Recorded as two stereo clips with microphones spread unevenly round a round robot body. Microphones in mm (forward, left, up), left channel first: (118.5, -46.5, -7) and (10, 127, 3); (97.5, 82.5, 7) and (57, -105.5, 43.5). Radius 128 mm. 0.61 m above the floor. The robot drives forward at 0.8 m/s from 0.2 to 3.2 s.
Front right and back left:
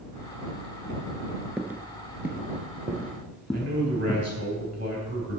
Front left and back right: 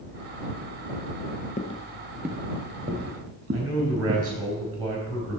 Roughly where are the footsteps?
Ahead left.